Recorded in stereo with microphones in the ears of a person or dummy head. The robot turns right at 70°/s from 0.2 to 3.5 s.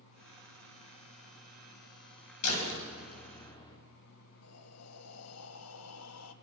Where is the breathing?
80° left, 1.6 m.